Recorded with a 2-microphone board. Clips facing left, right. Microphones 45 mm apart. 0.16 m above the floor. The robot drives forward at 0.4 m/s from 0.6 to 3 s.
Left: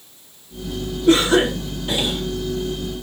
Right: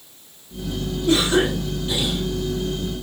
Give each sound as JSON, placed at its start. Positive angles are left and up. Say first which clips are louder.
{"t": 1.1, "sound": "a cough", "louder": "left 4 dB", "side_deg": 40, "distance_m": 5.0}